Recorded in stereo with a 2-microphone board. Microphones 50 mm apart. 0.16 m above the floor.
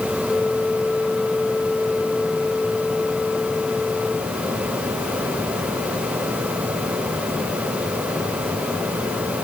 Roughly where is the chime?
I don't hear a chime.